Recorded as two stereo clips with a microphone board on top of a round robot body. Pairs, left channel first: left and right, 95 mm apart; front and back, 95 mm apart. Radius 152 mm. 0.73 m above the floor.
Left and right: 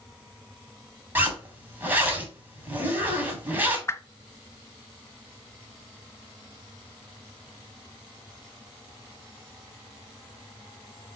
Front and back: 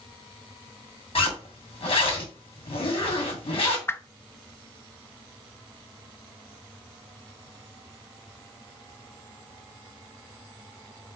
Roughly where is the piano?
I don't hear a piano.